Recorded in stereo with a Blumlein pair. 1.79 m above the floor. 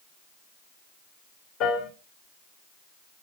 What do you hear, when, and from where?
1.6 s a piano: 35° left, 1.3 m